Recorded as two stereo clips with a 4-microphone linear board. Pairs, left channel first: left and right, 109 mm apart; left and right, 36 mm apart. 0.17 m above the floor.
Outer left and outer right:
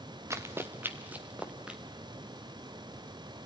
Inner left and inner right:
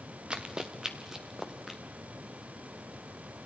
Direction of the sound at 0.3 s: 25° right (ahead or behind).